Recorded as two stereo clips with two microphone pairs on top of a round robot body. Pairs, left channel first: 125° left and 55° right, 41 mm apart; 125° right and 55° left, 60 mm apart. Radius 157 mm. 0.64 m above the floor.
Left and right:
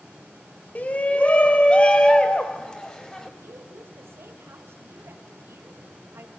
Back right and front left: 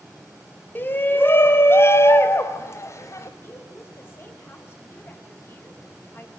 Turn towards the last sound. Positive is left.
turn(degrees=-75)